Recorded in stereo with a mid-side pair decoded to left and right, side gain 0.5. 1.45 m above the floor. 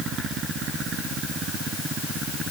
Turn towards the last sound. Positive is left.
No sound to turn to.